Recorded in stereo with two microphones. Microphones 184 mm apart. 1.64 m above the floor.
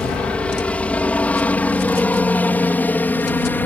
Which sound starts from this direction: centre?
A helicopter, at 0.0 s.